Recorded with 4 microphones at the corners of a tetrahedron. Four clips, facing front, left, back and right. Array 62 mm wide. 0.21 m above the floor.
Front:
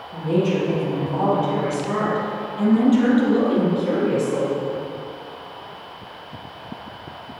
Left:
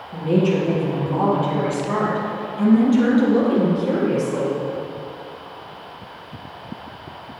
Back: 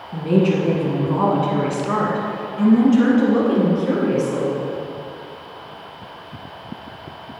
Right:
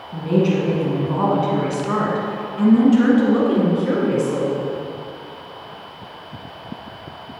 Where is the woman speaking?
170° right, 2 m; by 4.6 s 100° right, 3 m.